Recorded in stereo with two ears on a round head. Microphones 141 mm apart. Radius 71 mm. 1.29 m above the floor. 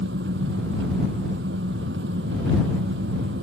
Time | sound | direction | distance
0.0 | an engine running | 85° right | ?